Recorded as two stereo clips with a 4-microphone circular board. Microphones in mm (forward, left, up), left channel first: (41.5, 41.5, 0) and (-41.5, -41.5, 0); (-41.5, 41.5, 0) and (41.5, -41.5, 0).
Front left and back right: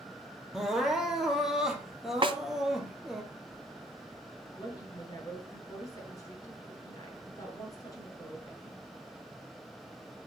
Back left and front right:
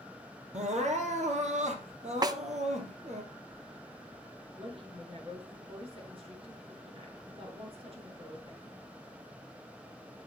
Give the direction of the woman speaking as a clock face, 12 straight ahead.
12 o'clock.